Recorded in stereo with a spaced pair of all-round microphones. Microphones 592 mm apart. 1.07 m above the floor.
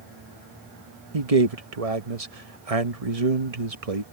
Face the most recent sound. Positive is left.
turn(degrees=-75)  # may be behind; listen again after turning